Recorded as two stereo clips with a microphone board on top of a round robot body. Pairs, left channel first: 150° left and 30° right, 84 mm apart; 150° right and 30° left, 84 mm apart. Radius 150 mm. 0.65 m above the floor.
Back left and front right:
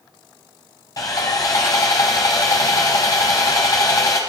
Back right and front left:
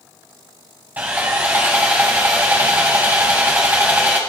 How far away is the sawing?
About 0.6 m.